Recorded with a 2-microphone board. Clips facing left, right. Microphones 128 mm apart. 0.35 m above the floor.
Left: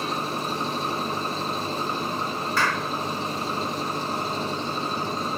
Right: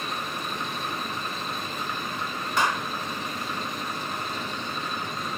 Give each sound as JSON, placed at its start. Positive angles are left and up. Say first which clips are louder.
{"t": 0.0, "sound": "an engine running", "louder": "left 5 dB", "side_deg": 35}
{"t": 2.6, "sound": "a clap", "louder": "right 1 dB", "side_deg": -20}